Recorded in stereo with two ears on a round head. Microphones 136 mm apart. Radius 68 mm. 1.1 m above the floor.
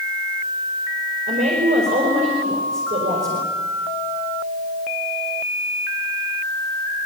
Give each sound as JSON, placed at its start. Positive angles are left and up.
{"t": 1.3, "sound": "a woman speaking", "side_deg": -50, "distance_m": 5.0}